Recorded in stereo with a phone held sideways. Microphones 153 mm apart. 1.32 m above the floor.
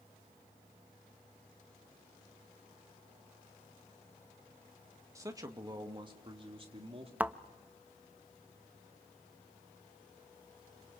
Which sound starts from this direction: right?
A man speaking, at 5.2 s.